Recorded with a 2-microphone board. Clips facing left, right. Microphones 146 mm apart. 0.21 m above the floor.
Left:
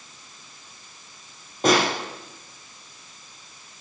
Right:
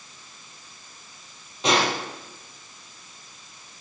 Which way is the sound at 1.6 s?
50° left (ahead or behind).